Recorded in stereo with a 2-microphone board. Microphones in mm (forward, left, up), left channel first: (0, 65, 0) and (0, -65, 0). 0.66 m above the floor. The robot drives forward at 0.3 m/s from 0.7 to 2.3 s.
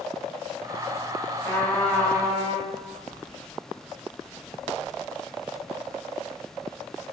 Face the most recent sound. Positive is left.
turn(degrees=10)  # may be behind; listen again after turning